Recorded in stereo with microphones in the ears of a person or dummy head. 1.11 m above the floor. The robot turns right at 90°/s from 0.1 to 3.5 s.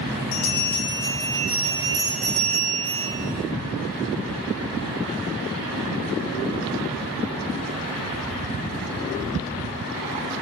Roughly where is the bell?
Ahead left.